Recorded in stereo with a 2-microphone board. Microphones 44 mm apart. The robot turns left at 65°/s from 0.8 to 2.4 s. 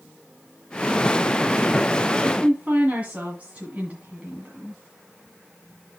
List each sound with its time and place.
2.2 s a woman speaking: 30° right (ahead or behind), 1.8 m; by 4.8 s 35° right (ahead or behind), 1.8 m